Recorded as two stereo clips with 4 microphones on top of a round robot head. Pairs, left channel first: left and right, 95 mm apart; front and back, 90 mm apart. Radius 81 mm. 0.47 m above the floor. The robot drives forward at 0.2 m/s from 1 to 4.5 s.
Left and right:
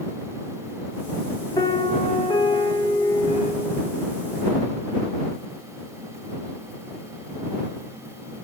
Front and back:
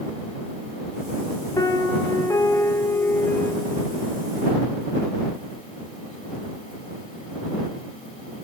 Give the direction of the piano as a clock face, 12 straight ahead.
10 o'clock.